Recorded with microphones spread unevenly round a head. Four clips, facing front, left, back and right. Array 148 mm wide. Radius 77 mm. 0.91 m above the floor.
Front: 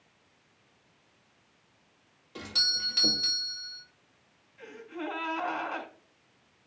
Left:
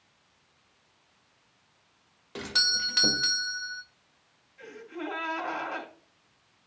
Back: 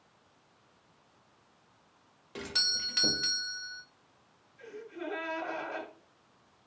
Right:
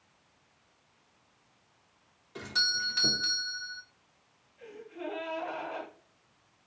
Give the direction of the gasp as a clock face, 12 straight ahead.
11 o'clock.